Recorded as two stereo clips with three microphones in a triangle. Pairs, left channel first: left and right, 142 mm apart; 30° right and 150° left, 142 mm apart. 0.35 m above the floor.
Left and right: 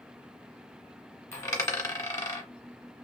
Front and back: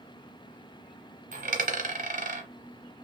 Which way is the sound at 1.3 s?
155° left.